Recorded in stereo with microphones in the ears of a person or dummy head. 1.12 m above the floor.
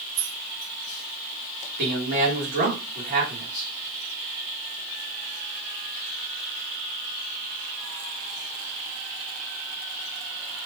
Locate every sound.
0.1 s keys jangling: 70° right (ahead or behind), 1.1 m
1.8 s a man speaking: 50° right (ahead or behind), 1.5 m